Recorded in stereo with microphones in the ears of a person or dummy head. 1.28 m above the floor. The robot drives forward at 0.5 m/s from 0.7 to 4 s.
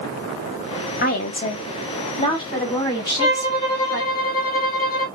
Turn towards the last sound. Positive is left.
turn(degrees=15)  # may be behind; listen again after turning